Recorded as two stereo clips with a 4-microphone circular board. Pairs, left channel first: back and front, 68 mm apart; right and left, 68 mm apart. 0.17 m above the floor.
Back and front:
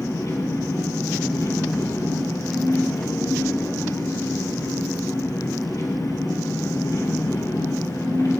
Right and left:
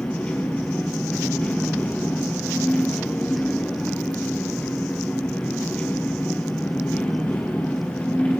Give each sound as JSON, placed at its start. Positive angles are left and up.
{"t": 0.0, "sound": "an engine running", "azimuth_deg": -160, "distance_m": 3.0}